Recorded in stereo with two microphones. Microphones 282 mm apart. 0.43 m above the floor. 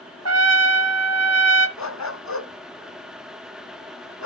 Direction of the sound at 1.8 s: 75° left (ahead or behind).